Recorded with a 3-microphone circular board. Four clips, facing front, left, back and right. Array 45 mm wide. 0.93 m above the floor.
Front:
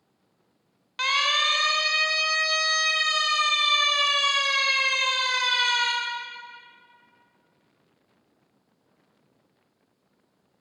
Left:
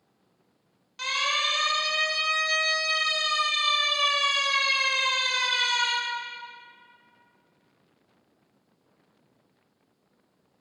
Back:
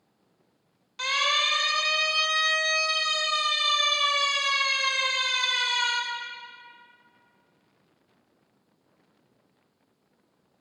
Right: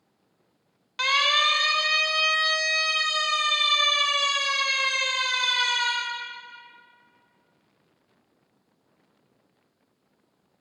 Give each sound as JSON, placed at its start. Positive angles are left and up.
{"t": 1.0, "sound": "a siren", "azimuth_deg": -45, "distance_m": 3.0}